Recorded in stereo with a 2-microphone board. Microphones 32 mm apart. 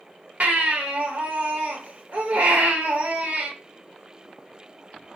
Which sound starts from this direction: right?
A baby crying, at 0.4 s.